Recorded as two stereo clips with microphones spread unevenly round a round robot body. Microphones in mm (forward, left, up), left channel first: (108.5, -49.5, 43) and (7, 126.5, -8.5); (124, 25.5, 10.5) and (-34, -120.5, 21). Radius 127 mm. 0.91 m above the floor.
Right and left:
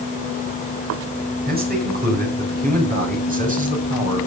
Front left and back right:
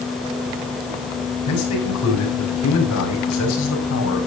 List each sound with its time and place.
1.5 s a man speaking: 75° left, 6.5 m; by 4.3 s 65° left, 5.5 m